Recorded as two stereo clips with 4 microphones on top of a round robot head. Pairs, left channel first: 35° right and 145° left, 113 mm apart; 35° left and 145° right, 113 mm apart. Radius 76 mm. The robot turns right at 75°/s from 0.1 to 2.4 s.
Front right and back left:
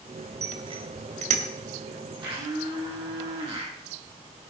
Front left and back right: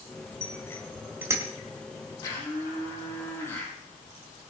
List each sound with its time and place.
0.4 s a bicycle bell: 85° left, 2 m; by 1.5 s 160° left, 2 m
2.2 s a blender: 90° left, 7 m; by 3.7 s 105° left, 7 m